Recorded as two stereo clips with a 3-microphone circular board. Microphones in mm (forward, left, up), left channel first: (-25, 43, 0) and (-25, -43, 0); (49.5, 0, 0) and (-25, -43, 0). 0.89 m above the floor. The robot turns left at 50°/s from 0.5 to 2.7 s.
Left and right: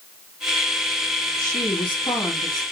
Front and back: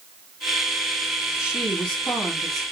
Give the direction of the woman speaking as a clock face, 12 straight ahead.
8 o'clock.